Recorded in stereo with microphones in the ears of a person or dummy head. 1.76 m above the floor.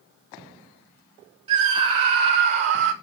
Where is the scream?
35° right (ahead or behind), 1.1 m; by 2.9 s 65° right (ahead or behind), 1.5 m.